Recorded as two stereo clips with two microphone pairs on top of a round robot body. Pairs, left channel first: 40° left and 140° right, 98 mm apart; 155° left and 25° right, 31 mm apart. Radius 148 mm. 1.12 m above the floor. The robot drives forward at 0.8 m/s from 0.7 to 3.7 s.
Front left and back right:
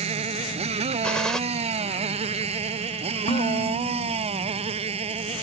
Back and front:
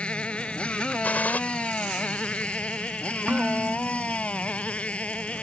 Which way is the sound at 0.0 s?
150° right.